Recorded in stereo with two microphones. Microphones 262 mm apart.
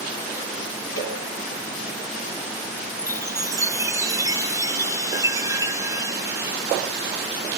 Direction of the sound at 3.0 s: 15° right (ahead or behind).